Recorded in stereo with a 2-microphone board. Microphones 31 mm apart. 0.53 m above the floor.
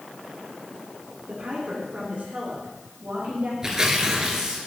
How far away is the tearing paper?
About 2.0 m.